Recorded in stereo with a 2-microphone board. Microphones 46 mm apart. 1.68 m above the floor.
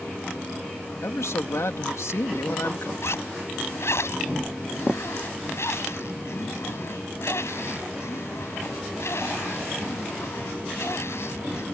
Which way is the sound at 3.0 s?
65° left (ahead or behind).